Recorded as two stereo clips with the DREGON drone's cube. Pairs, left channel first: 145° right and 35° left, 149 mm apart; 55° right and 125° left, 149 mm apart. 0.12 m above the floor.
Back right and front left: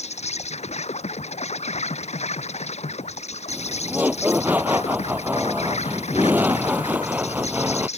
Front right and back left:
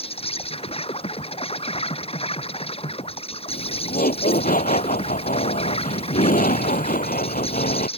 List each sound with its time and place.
0.0 s an insect: 105° right
3.5 s laughter: 45° right